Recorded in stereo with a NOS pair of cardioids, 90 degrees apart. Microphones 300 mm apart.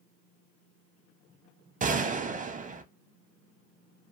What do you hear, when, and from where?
1.8 s a gunshot: 25° right, 0.6 m